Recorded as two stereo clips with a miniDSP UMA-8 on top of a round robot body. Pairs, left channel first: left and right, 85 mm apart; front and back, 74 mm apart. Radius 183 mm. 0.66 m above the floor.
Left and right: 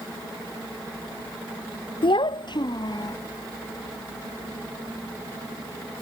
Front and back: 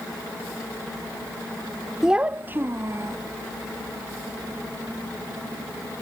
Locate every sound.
2.0 s a child speaking: 100° left; by 3.2 s 130° left